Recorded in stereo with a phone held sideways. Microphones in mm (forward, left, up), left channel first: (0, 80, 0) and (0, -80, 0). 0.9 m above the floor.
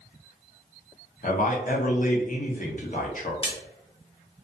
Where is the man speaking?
55° left (ahead or behind), 0.7 m.